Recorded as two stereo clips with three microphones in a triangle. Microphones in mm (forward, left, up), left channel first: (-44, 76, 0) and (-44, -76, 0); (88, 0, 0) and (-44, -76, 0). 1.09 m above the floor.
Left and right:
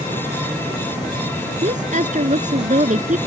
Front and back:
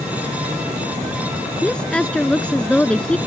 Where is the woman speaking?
55° right.